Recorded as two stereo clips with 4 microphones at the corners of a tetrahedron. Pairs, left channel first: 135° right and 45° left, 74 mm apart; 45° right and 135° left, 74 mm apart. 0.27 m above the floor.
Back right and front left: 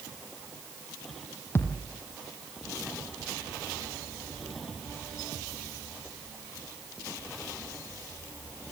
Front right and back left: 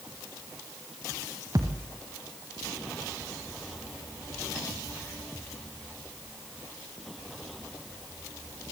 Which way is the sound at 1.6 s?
165° left.